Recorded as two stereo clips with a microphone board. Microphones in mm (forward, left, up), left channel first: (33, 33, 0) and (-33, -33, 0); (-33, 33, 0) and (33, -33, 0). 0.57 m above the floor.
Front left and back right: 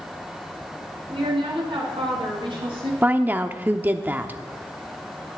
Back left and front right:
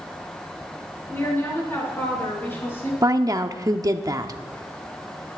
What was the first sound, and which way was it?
A woman speaking, 160° right.